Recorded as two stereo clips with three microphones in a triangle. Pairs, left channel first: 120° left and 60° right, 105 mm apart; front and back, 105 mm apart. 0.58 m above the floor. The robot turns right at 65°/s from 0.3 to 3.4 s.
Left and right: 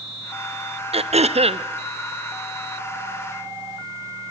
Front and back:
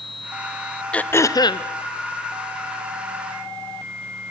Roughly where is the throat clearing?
Right.